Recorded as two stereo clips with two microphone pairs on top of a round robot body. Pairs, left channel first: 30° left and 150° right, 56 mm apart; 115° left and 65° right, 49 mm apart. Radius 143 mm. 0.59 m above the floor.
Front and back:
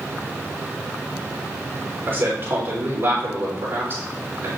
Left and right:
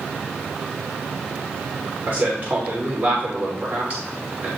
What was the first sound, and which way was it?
A man speaking, 100° right.